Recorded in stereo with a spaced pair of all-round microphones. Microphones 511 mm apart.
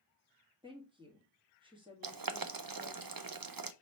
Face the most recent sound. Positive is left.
turn(degrees=-45)  # may be behind; listen again after turning